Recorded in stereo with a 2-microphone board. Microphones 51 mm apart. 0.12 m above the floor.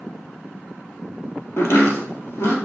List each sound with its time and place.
1.6 s chopping: 60° left (ahead or behind), 2.5 m